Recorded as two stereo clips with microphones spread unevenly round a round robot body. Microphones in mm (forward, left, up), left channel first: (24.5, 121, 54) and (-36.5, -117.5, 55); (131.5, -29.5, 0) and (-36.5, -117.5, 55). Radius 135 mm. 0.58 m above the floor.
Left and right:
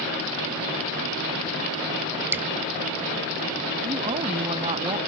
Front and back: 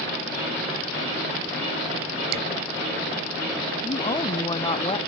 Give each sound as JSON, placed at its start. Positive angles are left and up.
{"t": 2.3, "sound": "dripping", "azimuth_deg": 175}
{"t": 3.8, "sound": "a woman speaking", "azimuth_deg": -35}